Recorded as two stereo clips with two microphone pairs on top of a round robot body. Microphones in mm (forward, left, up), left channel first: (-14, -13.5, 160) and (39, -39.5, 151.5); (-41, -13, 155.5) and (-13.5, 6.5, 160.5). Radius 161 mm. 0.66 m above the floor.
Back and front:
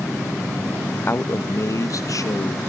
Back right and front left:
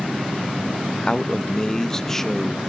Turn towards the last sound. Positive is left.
turn(degrees=135)